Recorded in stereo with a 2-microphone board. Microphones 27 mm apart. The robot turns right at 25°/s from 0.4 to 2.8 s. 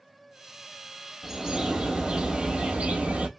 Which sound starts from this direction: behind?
A bird, at 1.2 s.